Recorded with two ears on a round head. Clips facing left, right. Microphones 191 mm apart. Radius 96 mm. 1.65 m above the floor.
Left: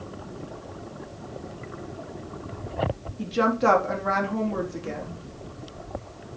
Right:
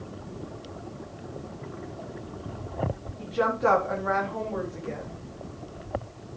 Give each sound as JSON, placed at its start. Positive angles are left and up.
{"t": 3.2, "sound": "a woman speaking", "side_deg": 55, "distance_m": 4.0}